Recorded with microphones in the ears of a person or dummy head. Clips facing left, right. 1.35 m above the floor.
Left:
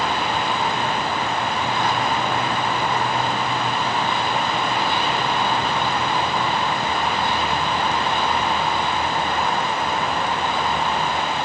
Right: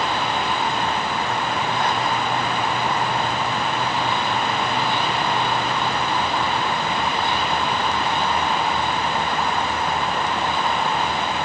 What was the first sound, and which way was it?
Only background noise.